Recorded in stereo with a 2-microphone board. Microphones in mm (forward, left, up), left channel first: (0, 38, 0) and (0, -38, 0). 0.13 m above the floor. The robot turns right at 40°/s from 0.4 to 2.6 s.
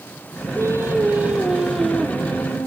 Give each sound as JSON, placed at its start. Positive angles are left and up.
{"t": 0.6, "sound": "singing", "azimuth_deg": -50, "distance_m": 2.5}